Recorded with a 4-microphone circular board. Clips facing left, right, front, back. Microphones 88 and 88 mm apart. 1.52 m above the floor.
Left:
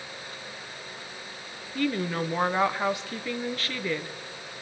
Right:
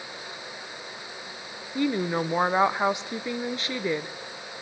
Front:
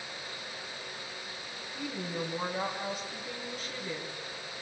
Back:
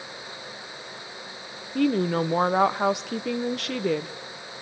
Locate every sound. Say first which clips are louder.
1.8 s a woman speaking: right 2 dB, back 15 dB; 160° right, 0.9 m